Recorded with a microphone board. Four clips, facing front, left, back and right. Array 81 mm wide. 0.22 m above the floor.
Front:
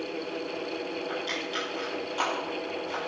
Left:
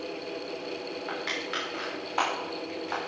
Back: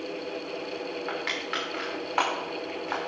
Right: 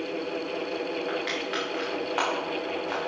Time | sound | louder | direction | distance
1.1 | crushing | right 4 dB, back 1 dB | 165° right | 4.5 m